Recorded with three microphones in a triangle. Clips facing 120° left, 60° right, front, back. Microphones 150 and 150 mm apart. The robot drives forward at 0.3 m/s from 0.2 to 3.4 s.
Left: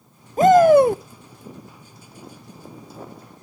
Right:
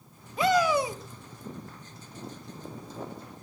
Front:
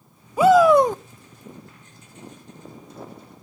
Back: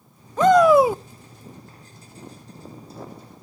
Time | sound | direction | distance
0.4 | a shout | 80° left | 0.5 m